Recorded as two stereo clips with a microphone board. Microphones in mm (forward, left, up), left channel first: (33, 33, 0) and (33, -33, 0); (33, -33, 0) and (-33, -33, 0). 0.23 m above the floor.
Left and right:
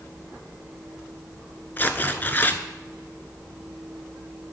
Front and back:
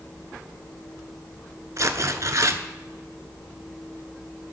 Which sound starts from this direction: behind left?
Tearing paper, at 1.8 s.